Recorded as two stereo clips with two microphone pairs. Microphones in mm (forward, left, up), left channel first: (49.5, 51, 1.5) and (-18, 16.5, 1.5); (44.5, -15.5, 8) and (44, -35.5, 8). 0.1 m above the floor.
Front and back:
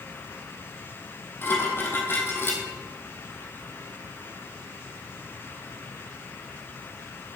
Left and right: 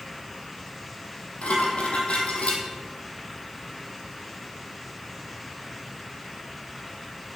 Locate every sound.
1.4 s dishes clattering: 85° left, 2.5 m